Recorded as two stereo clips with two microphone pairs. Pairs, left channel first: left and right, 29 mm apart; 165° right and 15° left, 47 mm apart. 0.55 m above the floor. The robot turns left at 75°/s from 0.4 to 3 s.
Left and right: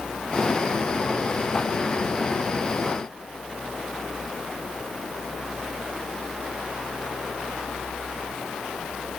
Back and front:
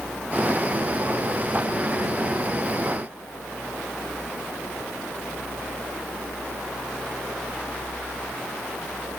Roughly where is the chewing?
No chewing in this recording.